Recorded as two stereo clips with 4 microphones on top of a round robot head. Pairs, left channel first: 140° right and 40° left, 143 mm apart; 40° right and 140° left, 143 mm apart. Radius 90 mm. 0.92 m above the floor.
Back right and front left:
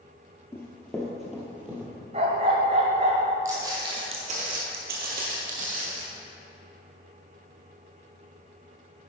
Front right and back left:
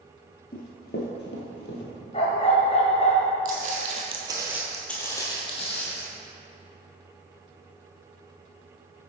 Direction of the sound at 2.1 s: Straight ahead.